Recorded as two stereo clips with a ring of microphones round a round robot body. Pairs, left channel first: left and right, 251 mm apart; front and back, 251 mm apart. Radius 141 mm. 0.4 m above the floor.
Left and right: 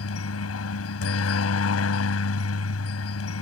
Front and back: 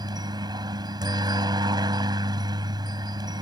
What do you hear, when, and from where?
0.0 s a helicopter: 110° left